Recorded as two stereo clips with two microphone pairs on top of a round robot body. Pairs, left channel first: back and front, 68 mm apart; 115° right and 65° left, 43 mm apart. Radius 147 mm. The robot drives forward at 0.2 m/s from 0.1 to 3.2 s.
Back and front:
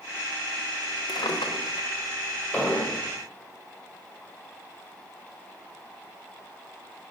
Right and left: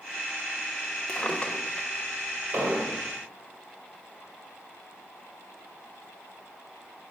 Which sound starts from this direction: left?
An explosion, at 2.5 s.